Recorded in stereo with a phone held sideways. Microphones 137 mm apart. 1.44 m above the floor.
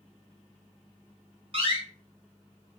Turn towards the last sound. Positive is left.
turn(degrees=-45)  # may be behind; listen again after turning